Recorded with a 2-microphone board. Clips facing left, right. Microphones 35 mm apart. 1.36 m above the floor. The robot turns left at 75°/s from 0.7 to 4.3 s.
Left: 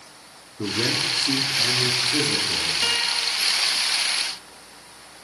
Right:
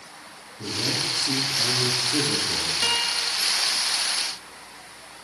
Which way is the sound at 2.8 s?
10° left.